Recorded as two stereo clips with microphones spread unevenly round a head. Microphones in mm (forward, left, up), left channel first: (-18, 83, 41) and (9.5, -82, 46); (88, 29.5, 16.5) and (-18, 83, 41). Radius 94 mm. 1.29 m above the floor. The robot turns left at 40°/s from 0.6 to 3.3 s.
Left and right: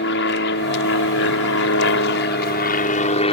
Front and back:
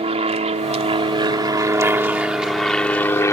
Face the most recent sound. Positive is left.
turn(degrees=40)